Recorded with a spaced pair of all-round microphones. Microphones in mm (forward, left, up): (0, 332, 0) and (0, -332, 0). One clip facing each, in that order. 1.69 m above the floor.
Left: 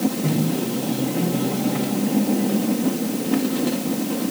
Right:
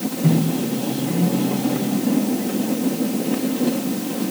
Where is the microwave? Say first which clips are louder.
Right 2 dB; 5° right (ahead or behind), 7 m.